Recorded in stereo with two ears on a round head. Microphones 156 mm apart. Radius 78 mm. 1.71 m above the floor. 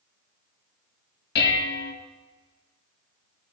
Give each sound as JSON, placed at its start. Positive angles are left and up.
{"t": 1.4, "sound": "dishes clattering", "side_deg": 65, "distance_m": 1.5}